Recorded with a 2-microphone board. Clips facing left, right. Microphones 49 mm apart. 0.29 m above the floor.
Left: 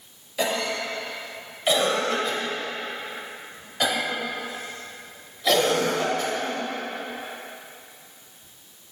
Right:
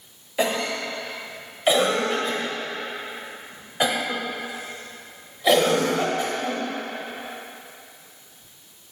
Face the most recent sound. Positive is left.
turn(degrees=-20)  # may be behind; listen again after turning